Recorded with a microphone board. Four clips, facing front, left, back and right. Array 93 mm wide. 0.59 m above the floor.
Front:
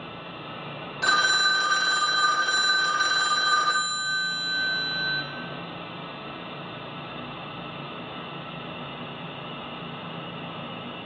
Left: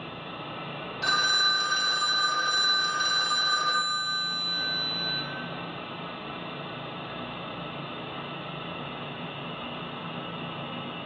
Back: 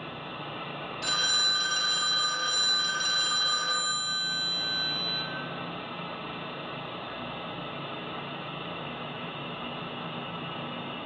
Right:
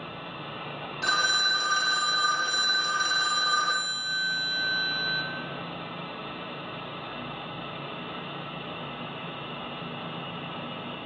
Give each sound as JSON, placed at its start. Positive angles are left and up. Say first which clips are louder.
{"t": 1.0, "sound": "a phone ringing", "louder": "even, front 11 dB", "azimuth_deg": -5, "distance_m": 0.6}